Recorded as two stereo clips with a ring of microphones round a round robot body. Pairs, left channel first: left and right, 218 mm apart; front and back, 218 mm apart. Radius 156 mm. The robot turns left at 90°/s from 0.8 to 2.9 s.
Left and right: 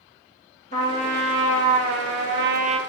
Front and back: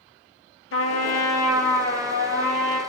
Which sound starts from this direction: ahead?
A trumpet, at 0.7 s.